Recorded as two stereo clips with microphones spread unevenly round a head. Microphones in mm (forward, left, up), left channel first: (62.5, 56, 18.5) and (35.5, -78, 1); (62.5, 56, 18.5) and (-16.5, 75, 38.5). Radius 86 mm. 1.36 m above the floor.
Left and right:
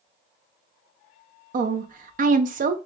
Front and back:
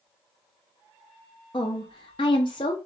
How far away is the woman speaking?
About 0.5 m.